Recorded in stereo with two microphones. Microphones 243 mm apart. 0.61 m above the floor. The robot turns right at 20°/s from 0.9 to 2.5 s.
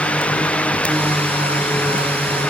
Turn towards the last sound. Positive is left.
No sound to turn to.